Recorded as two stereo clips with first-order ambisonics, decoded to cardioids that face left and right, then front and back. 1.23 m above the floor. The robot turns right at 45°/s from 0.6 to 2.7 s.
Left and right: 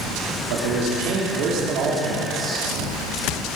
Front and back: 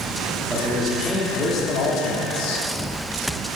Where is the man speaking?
95° right, 3.5 m; by 2.7 s 5° right, 3.5 m.